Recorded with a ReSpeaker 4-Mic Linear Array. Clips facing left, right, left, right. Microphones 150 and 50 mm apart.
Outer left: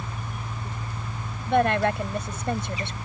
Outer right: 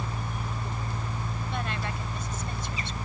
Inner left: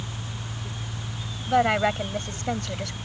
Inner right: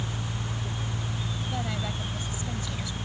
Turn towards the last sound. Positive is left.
turn(degrees=65)  # may be behind; listen again after turning